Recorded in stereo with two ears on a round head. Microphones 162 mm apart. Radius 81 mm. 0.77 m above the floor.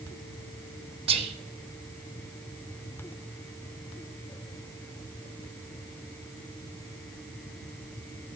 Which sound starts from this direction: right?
Whispering, at 1.1 s.